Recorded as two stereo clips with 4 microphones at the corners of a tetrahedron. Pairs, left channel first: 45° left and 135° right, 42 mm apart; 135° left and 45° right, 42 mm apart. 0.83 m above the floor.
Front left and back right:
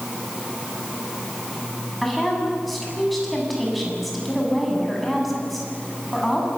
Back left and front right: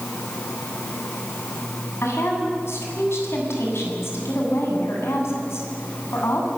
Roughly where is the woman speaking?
Behind left.